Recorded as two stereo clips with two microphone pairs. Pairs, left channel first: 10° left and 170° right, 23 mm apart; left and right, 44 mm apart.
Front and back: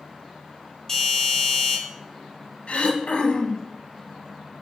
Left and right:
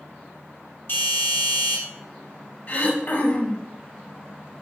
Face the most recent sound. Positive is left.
turn(degrees=45)